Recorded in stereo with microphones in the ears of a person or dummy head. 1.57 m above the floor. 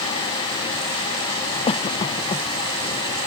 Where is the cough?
35° left (ahead or behind).